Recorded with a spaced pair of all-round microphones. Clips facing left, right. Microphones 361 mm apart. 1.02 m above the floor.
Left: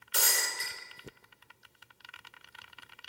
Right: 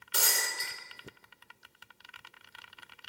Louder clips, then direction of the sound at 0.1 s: Even; 55° right (ahead or behind).